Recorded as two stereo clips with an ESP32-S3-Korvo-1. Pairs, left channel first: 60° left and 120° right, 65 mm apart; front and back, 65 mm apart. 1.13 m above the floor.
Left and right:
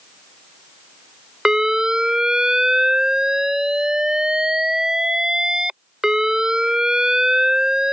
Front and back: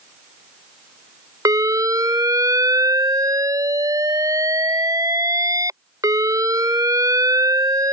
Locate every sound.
1.4 s an alarm: 160° left